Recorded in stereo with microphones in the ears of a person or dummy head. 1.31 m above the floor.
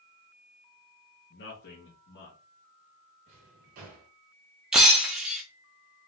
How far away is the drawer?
About 1.4 m.